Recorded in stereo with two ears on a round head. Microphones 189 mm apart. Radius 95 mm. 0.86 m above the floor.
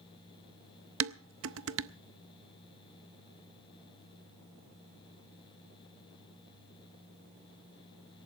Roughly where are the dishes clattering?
Right.